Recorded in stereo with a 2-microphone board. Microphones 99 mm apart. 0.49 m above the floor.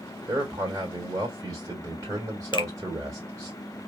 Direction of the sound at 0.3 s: 35° right (ahead or behind).